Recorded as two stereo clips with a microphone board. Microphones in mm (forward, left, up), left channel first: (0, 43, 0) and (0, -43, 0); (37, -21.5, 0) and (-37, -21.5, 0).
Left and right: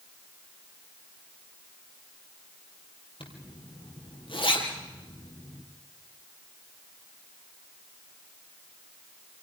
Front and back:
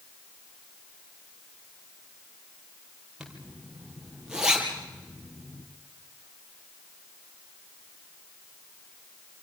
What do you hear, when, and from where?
3.2 s a zipper: 100° left, 4 m